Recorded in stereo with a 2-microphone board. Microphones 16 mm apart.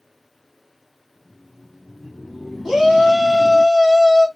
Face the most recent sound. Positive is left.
turn(degrees=-35)  # may be behind; listen again after turning